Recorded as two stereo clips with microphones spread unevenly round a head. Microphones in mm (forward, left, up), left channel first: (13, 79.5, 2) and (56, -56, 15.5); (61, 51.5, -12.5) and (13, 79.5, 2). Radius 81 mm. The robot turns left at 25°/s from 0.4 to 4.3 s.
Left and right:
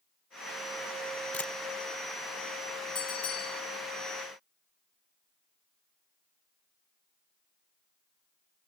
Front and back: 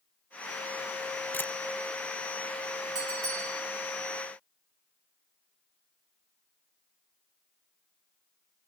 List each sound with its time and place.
1.3 s a camera shutter: 25° left, 1.0 m; by 1.5 s 20° left, 1.0 m
3.0 s a bell: 170° left, 1.4 m; by 3.6 s 155° left, 1.4 m